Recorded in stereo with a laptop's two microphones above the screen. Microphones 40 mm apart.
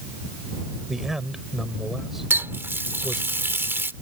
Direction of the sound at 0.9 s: 10° right (ahead or behind).